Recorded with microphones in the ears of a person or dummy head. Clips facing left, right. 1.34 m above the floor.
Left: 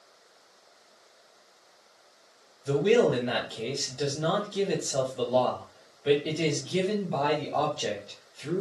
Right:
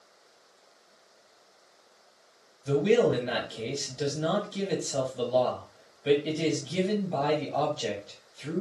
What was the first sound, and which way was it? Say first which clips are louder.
A man speaking: left 1 dB; 10° right (ahead or behind).